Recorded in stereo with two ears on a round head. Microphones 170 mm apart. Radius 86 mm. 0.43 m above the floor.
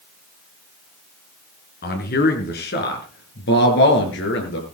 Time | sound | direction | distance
1.8 | a man speaking | 55° left (ahead or behind) | 4.5 m